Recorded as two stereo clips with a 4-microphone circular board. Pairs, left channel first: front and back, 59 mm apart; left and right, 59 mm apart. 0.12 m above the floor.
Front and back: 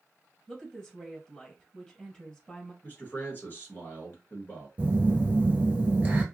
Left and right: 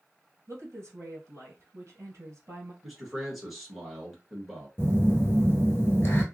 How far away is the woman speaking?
About 1.7 m.